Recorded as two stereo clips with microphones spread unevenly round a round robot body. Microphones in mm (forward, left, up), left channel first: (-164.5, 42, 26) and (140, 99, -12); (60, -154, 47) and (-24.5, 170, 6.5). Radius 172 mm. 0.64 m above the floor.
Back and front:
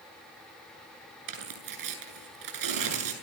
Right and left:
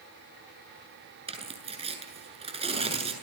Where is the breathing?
I don't hear breathing.